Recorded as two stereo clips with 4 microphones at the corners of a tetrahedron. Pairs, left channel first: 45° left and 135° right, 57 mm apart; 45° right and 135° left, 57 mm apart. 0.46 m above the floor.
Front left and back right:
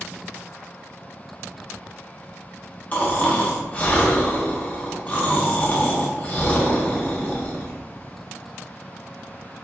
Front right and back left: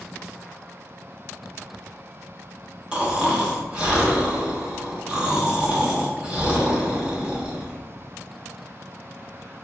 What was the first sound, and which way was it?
Snoring, 75° left.